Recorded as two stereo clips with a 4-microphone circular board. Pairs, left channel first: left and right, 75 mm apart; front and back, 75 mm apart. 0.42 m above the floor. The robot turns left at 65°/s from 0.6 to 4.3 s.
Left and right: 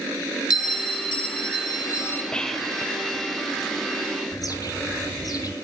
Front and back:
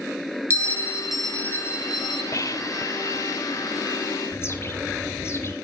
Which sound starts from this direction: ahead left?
A bird, at 4.3 s.